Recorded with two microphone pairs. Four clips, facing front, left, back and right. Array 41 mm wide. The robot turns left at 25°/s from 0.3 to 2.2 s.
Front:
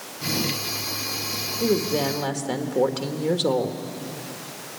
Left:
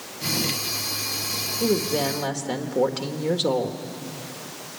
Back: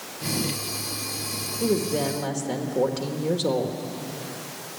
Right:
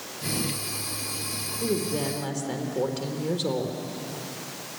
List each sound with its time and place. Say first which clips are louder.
1.6 s a woman speaking: left 4 dB, front 1 dB; 55° left, 1.6 m; by 3.8 s 40° left, 1.6 m